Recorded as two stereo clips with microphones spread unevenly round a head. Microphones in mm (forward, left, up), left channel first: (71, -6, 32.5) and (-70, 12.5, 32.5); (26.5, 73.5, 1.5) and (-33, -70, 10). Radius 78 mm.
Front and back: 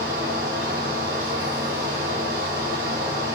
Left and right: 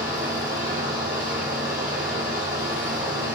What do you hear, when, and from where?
0.0 s a fan: 150° right, 1.3 m